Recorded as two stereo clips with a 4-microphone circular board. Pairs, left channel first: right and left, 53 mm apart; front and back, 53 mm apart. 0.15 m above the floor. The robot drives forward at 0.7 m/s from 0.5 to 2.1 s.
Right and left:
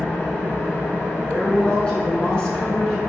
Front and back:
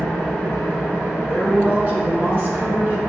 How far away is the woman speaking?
About 1.3 m.